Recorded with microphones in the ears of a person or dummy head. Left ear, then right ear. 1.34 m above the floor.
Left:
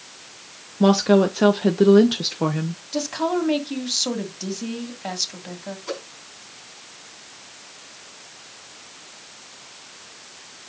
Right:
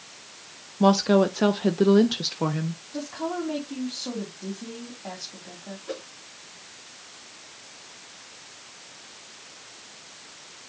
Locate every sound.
0.8 s a woman speaking: 5° left (ahead or behind), 0.5 m
2.9 s a woman speaking: 80° left, 2.5 m
5.9 s a whoosh: 60° left (ahead or behind), 3.5 m